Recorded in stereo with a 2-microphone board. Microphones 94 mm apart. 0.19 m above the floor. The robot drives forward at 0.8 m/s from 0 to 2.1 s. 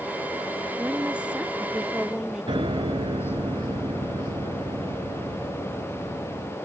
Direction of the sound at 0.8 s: 10° right (ahead or behind).